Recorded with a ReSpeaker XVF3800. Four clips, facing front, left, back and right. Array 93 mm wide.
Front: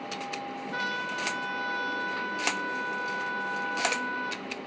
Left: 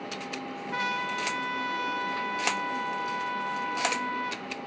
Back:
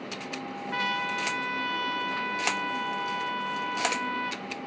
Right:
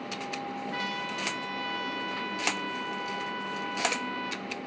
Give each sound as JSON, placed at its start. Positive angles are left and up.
{"t": 0.7, "sound": "a trumpet", "azimuth_deg": 160, "distance_m": 1.0}